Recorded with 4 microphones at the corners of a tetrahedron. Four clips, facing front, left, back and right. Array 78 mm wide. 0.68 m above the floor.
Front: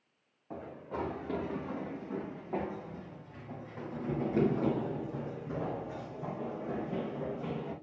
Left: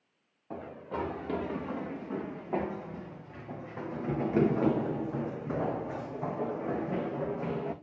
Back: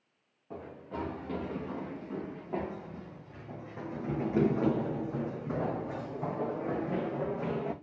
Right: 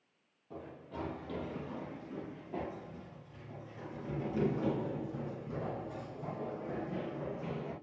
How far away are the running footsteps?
About 4 m.